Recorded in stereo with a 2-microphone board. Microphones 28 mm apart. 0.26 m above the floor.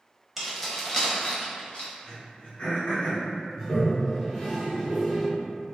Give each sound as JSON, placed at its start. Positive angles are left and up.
{"t": 0.4, "sound": "keys jangling", "side_deg": -5, "distance_m": 0.6}
{"t": 2.0, "sound": "throat clearing", "side_deg": 45, "distance_m": 1.3}
{"t": 3.5, "sound": "a toilet flushing", "side_deg": -5, "distance_m": 1.4}